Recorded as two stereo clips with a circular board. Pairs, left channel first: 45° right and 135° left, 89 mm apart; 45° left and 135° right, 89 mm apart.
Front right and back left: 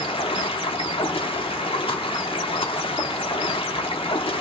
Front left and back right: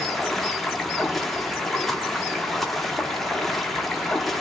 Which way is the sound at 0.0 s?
45° right.